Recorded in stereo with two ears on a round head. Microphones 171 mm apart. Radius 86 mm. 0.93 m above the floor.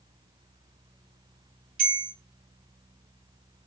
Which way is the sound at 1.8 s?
50° right (ahead or behind).